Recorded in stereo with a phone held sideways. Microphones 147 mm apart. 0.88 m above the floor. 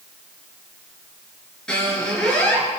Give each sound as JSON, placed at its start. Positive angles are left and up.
{"t": 1.7, "sound": "a squeak", "side_deg": 5, "distance_m": 5.5}